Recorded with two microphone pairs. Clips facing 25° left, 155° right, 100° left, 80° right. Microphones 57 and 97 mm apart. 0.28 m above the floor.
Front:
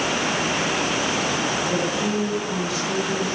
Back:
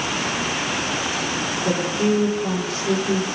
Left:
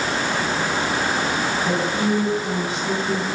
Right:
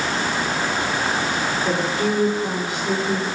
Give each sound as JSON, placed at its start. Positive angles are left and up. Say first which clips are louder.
{"t": 1.6, "sound": "a woman speaking", "louder": "back 2 dB, even", "azimuth_deg": -170, "distance_m": 5.5}